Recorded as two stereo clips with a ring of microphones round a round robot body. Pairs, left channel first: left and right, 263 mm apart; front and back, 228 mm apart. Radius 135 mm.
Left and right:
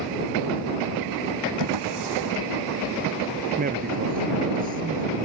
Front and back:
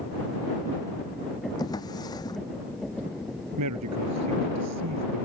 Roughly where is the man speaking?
Behind right.